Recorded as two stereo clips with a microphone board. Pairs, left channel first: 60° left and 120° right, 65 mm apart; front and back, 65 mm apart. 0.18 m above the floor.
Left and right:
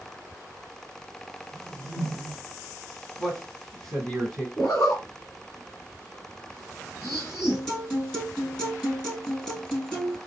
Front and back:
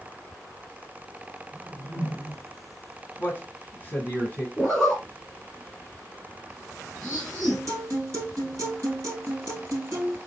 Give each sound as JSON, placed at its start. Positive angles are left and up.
{"t": 1.5, "sound": "a whoosh", "azimuth_deg": 60, "distance_m": 1.6}
{"t": 3.2, "sound": "a man speaking", "azimuth_deg": -20, "distance_m": 1.1}
{"t": 4.6, "sound": "a zipper", "azimuth_deg": 80, "distance_m": 1.3}
{"t": 7.5, "sound": "a guitar", "azimuth_deg": 140, "distance_m": 2.5}